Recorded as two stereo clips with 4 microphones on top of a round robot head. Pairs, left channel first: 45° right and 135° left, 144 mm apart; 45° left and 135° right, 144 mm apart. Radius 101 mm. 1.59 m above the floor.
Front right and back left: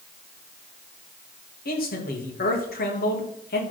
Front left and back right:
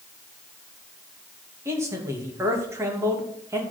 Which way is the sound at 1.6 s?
65° right.